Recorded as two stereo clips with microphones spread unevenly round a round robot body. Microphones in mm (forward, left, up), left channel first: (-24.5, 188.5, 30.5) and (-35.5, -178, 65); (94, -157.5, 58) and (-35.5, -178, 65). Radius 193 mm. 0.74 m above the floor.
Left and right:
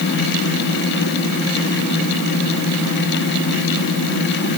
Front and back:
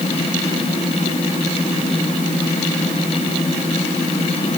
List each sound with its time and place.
Only background noise.